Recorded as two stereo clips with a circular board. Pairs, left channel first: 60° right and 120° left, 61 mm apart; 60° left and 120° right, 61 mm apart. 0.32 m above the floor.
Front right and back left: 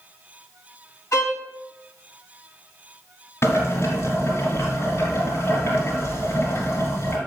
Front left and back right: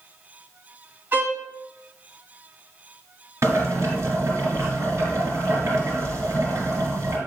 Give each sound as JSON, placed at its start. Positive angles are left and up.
{"t": 1.1, "sound": "a violin", "azimuth_deg": -70, "distance_m": 2.5}
{"t": 3.4, "sound": "boiling", "azimuth_deg": -90, "distance_m": 3.0}